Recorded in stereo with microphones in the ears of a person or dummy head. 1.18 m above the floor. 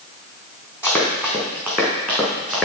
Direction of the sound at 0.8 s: 5° right (ahead or behind).